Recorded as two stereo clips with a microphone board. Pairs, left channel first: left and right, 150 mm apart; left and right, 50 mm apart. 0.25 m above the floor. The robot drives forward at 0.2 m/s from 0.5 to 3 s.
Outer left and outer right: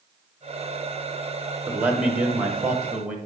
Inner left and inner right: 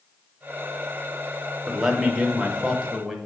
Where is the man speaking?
10° right (ahead or behind), 1.0 m.